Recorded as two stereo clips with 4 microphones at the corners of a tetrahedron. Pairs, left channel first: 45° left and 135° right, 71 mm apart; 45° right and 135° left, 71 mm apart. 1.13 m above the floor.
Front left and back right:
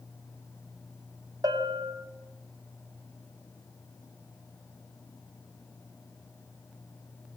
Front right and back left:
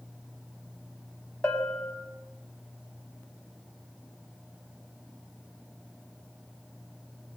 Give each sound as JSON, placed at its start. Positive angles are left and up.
{"t": 1.4, "sound": "a bell", "azimuth_deg": -105, "distance_m": 4.5}